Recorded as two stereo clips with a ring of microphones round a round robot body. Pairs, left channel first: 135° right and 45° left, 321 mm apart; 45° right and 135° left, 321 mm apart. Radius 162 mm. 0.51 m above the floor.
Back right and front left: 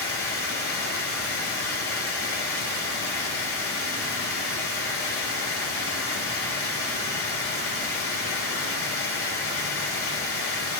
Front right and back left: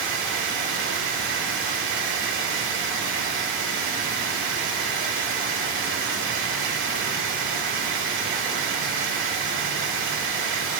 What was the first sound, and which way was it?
Running water, 175° right.